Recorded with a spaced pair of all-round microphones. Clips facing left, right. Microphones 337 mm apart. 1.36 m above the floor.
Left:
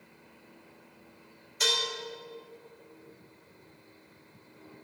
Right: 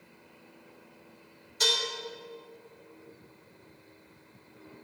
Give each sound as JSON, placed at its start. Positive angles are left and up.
{"t": 1.6, "sound": "dishes clattering", "side_deg": -50, "distance_m": 3.0}